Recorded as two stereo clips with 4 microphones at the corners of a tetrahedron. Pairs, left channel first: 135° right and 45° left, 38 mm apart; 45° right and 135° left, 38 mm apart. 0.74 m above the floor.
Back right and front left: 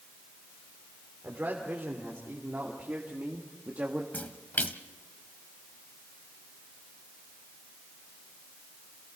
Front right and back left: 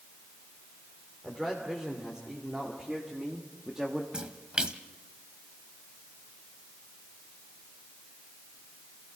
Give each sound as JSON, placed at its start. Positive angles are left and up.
{"t": 1.2, "sound": "a man speaking", "azimuth_deg": 70, "distance_m": 3.0}
{"t": 4.1, "sound": "a splash", "azimuth_deg": -160, "distance_m": 0.9}